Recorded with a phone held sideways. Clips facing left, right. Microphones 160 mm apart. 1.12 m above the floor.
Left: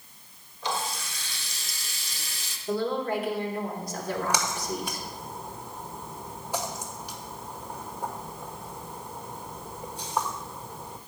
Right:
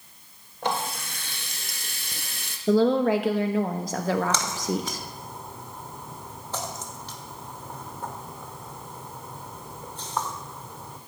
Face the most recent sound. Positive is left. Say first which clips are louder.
# right 3 dB
turn(degrees=10)  # may be behind; listen again after turning